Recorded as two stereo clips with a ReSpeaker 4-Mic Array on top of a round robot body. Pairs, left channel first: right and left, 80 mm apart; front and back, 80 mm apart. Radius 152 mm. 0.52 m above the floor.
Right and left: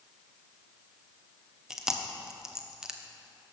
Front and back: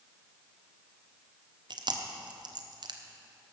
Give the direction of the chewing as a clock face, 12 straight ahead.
6 o'clock.